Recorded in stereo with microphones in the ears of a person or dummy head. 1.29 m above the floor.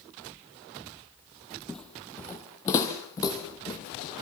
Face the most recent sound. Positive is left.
turn(degrees=30)  # may be behind; listen again after turning